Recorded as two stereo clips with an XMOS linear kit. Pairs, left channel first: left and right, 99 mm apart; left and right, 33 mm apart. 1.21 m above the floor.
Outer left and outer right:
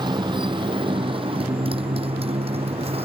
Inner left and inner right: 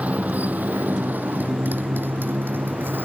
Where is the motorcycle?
50° right (ahead or behind); by 3.1 s 80° right.